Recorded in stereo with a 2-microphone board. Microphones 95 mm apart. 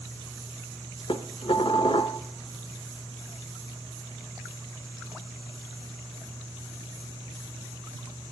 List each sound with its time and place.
1.1 s dishes clattering: 70° left (ahead or behind), 0.9 m